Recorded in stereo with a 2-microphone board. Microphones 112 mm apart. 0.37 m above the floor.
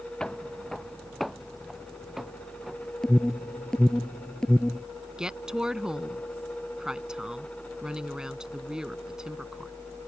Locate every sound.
0.2 s footsteps: 5° left (ahead or behind); by 2.9 s 5° right (ahead or behind)
3.0 s an alarm: 5° left (ahead or behind)
5.2 s a woman speaking: 5° right (ahead or behind)